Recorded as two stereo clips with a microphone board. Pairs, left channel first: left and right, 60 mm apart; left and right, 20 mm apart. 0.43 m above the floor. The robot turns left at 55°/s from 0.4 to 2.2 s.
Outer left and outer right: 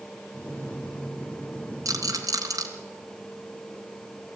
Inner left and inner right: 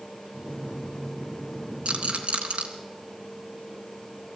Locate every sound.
1.9 s a rattle: 65° right (ahead or behind), 3 m; by 2.7 s 80° right, 3 m